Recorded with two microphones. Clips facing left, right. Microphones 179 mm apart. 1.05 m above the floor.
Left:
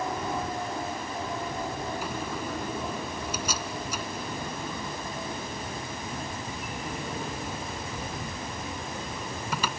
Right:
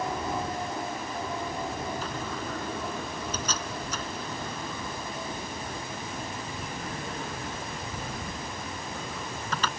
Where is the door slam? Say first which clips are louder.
Left 1 dB; 10° left (ahead or behind).